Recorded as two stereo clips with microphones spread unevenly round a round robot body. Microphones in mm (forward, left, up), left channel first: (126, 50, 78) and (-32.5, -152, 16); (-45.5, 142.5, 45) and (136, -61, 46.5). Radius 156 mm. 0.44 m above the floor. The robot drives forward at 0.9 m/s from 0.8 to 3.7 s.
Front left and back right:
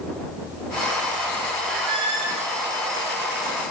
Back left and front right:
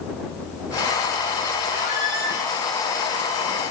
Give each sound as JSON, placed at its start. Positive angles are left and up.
{"t": 1.7, "sound": "a squeak", "azimuth_deg": -85, "distance_m": 4.5}